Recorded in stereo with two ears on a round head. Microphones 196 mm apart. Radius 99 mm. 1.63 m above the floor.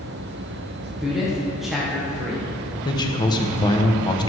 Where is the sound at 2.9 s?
20° left (ahead or behind), 1.2 m.